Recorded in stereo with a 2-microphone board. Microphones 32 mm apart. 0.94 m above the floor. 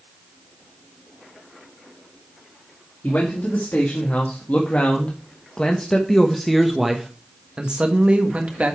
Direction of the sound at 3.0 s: 60° left (ahead or behind).